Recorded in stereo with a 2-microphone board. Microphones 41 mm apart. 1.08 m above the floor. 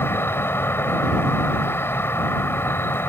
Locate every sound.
0.0 s an insect: 75° left (ahead or behind)